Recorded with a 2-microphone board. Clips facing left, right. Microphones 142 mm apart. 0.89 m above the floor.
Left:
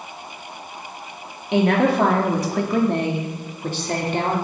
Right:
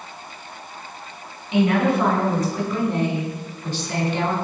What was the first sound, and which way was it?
A woman speaking, 70° left (ahead or behind).